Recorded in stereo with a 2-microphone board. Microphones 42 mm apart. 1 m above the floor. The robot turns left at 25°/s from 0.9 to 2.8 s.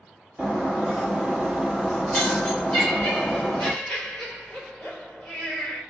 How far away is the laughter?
About 3.5 m.